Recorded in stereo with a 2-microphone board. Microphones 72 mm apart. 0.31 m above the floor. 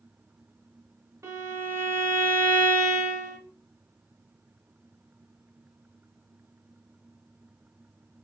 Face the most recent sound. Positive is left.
turn(degrees=-35)  # may be behind; listen again after turning